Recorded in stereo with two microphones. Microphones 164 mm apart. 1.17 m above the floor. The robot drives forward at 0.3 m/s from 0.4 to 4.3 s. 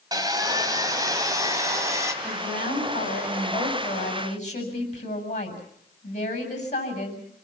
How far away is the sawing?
About 2.0 m.